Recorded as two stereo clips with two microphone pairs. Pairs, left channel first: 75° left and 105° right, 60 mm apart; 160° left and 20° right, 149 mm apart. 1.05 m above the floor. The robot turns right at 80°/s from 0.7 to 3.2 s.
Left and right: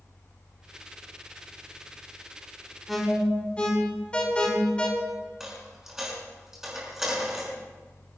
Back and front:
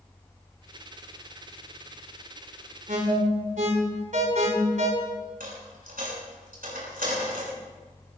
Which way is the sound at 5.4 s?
25° right.